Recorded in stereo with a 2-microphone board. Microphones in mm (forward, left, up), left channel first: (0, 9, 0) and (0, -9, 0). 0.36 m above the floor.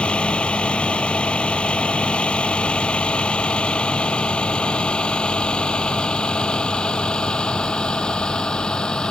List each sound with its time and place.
0.0 s a vehicle: 80° left; by 9.1 s 55° left (ahead or behind)